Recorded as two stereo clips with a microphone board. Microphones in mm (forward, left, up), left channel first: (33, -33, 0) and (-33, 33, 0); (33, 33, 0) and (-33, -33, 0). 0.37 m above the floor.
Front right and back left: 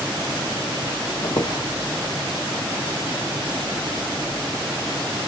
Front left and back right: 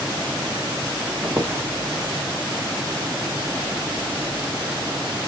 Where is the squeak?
75° right, 0.8 m.